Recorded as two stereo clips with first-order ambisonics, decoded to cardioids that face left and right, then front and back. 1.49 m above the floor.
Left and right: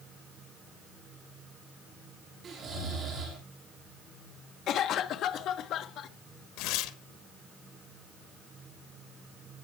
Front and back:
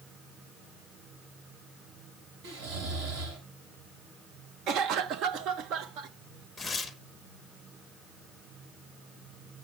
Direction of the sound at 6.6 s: 80° left.